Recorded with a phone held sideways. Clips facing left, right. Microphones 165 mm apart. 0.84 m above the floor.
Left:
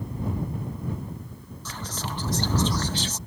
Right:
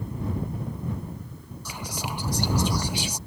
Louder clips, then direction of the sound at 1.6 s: Right 1 dB; 10° right (ahead or behind).